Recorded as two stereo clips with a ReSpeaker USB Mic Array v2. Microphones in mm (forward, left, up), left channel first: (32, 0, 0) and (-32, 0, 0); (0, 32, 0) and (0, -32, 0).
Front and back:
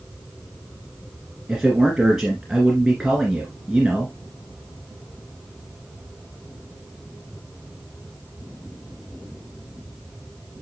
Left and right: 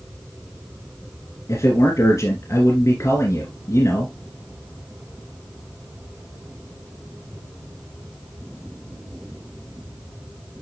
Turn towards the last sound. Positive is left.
turn(degrees=100)